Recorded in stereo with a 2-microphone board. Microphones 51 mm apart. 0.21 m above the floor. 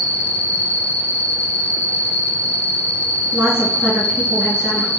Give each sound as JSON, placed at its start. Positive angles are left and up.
{"t": 0.0, "sound": "an insect", "side_deg": -60, "distance_m": 1.0}
{"t": 3.3, "sound": "a woman speaking", "side_deg": -65, "distance_m": 2.5}